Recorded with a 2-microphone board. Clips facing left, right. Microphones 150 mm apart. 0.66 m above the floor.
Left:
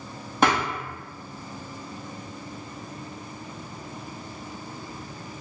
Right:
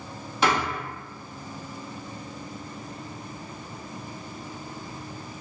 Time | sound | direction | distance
0.4 | a thud | 55° left (ahead or behind) | 1.7 m